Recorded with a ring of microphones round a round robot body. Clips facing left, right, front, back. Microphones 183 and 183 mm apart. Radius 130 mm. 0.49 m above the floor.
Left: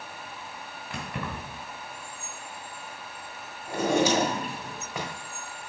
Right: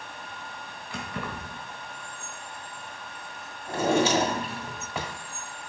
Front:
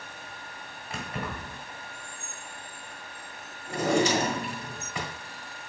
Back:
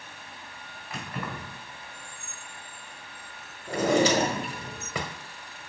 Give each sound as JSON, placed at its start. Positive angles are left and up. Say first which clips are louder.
{"t": 0.9, "sound": "keys jangling", "louder": "even, front 1 dB", "azimuth_deg": 65, "distance_m": 3.0}
{"t": 3.7, "sound": "a drawer", "louder": "even, back 2 dB", "azimuth_deg": 180, "distance_m": 1.2}